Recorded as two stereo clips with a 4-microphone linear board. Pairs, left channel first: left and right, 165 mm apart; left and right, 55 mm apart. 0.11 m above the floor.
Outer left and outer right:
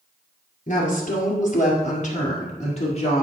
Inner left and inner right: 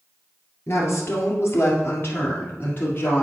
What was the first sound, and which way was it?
A woman speaking, 50° left (ahead or behind).